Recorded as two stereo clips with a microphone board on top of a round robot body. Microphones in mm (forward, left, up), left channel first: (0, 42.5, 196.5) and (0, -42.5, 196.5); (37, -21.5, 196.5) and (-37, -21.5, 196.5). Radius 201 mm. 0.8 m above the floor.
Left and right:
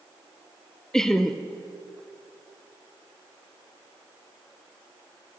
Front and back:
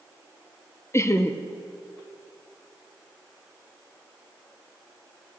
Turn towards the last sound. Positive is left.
turn(degrees=10)